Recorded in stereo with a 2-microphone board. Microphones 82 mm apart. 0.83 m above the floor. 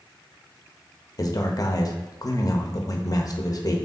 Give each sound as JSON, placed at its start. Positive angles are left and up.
{"t": 1.2, "sound": "a man speaking", "side_deg": 50, "distance_m": 0.6}